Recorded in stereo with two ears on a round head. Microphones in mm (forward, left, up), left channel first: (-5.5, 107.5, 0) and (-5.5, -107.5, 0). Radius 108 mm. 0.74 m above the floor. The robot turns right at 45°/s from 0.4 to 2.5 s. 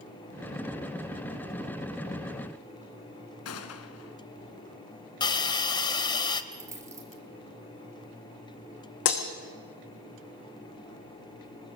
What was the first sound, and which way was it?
A gunshot, 65° left (ahead or behind).